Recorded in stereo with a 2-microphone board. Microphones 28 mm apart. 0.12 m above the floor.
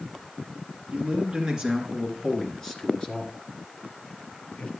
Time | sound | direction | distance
0.9 | a man speaking | 30° right (ahead or behind) | 1.9 m